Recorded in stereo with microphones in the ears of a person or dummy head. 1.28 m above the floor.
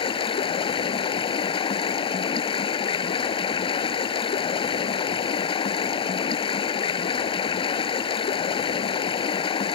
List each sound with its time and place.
0.0 s running water: 30° left (ahead or behind)